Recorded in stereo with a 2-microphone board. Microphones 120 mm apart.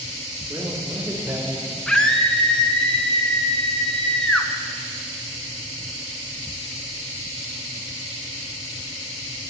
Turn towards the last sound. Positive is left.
turn(degrees=5)  # may be behind; listen again after turning